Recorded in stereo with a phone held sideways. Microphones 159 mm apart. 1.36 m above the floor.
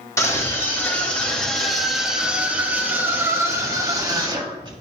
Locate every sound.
0.2 s a scream: 20° left (ahead or behind), 2.5 m; by 4.8 s 30° right (ahead or behind), 3 m